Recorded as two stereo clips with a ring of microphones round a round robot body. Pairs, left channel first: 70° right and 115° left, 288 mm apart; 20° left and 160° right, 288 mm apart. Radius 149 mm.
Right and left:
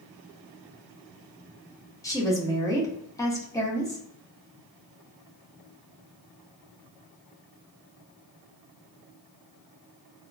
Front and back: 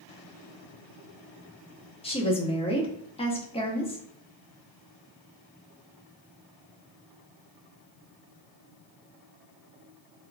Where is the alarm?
No alarm in this recording.